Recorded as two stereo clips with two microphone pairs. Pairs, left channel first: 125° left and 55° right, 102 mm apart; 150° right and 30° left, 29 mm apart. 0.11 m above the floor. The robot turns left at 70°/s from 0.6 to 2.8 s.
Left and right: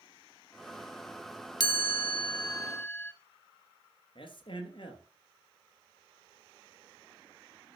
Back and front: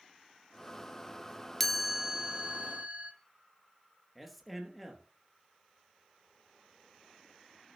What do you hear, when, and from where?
1.6 s a chime: 140° left, 0.7 m; by 3.1 s 55° left, 0.7 m
4.2 s a man speaking: 120° left, 2.5 m